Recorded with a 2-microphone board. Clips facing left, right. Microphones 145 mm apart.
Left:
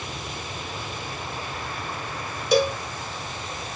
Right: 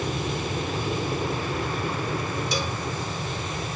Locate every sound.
0.0 s an aircraft: 50° right (ahead or behind); by 3.8 s 60° right (ahead or behind)
2.5 s a cowbell: 55° left (ahead or behind)